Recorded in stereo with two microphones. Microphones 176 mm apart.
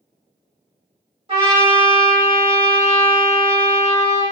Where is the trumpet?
30° right (ahead or behind), 1.3 m.